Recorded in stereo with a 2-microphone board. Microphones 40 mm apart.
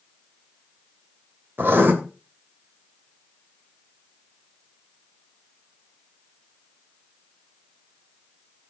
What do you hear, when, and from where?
1.6 s writing: 55° right (ahead or behind), 2.5 m